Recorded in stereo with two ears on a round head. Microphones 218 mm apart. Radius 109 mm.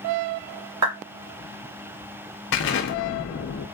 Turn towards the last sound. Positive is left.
turn(degrees=50)  # may be behind; listen again after turning